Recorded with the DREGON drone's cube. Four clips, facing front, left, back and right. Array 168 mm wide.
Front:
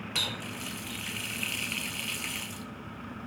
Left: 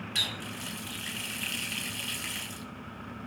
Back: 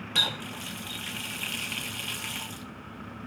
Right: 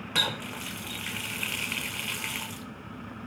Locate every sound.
0.1 s a running tap: 100° right, 2 m